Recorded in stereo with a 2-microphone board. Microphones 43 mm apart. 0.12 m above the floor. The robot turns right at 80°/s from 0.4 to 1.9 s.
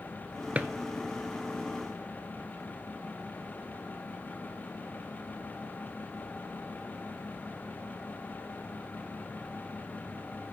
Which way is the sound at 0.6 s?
35° right (ahead or behind).